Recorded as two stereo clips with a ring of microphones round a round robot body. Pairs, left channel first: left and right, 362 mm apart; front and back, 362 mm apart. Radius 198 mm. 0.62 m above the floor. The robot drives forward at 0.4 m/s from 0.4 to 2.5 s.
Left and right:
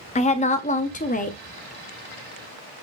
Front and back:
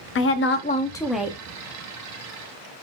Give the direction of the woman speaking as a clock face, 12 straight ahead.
11 o'clock.